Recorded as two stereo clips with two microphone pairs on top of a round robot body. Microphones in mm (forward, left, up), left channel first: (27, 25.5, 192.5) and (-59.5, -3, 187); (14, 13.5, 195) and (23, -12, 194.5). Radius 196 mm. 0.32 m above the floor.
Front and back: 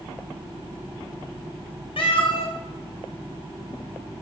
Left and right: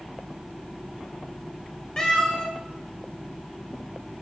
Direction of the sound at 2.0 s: 45° left.